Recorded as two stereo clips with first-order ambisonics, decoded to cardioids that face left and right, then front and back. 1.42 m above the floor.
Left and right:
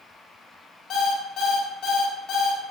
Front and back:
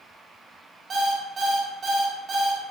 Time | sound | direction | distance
0.9 | an alarm clock | 125° left | 0.5 m